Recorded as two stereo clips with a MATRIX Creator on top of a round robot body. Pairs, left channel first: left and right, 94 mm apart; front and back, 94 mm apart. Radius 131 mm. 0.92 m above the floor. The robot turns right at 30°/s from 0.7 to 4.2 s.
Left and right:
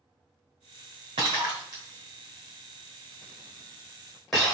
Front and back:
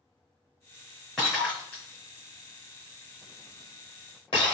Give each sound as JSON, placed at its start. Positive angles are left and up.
{"t": 1.2, "sound": "breaking glass", "azimuth_deg": -85, "distance_m": 1.0}